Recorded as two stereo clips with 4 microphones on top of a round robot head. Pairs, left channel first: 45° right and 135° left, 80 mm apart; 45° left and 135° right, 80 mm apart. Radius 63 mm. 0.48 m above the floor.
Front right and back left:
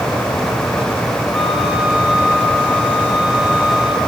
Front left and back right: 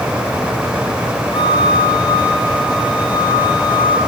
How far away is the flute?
About 2 m.